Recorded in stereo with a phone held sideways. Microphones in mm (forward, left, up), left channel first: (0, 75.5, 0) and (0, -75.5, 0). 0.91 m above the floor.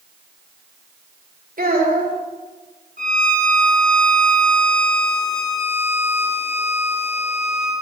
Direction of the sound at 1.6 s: 75° right (ahead or behind).